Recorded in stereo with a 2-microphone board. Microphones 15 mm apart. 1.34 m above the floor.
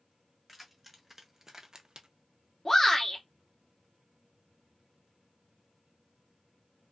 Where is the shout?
25° left (ahead or behind), 1.2 m.